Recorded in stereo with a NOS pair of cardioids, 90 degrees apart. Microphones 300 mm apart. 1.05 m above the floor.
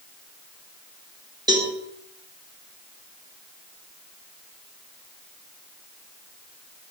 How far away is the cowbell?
About 1.8 m.